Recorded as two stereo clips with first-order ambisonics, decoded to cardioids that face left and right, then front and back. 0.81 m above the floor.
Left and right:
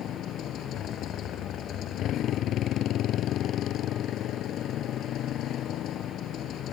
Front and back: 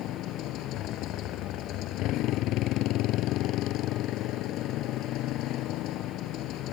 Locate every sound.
0.0 s a motorcycle: 40° left